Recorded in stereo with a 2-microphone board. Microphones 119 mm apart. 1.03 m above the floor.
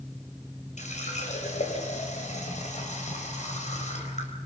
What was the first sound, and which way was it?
A running tap, 80° left.